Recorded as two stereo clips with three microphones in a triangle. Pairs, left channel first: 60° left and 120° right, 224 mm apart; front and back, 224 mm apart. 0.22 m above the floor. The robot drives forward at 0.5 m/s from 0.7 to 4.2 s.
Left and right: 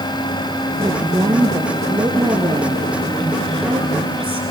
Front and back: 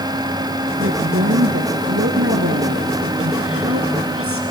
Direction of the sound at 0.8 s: 170° left.